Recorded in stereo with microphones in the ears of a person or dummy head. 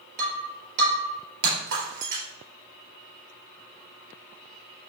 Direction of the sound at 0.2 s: 65° right (ahead or behind).